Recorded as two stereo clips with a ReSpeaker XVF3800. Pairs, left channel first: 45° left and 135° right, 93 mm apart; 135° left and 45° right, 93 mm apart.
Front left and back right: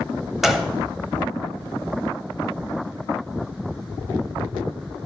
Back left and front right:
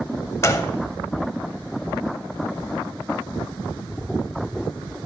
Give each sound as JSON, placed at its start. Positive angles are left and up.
{"t": 0.4, "sound": "a gunshot", "azimuth_deg": 140, "distance_m": 0.7}